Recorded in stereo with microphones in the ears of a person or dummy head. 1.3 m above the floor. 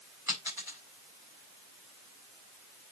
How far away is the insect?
I don't hear an insect.